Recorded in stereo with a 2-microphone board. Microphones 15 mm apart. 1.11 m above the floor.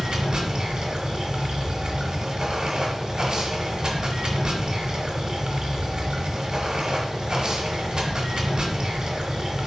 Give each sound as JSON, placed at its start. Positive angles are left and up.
{"t": 0.0, "sound": "running water", "side_deg": -50, "distance_m": 1.2}